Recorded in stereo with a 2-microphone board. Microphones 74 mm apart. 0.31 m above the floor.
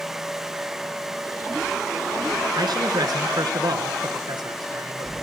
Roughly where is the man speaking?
Right.